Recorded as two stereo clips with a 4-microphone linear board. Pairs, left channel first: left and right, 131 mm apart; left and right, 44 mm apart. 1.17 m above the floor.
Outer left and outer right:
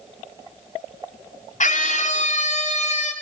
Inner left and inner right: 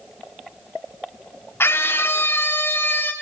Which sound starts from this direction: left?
A scream, at 1.6 s.